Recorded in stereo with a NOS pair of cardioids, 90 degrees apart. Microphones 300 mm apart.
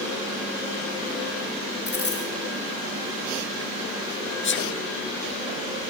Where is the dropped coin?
35° left, 6 m.